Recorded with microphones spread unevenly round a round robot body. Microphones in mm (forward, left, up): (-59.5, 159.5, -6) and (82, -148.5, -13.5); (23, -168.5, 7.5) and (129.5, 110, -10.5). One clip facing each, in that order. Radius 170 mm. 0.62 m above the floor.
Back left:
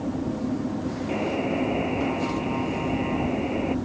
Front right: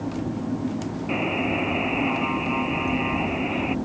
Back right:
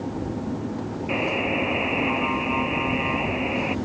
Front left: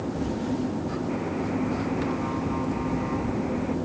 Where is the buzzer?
125° right.